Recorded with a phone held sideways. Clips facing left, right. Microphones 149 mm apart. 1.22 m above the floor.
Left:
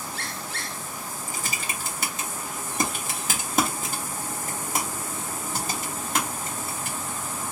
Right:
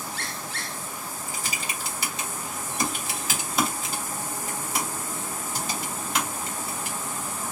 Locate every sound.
1.3 s typing on a keyboard: 50° left (ahead or behind), 1.2 m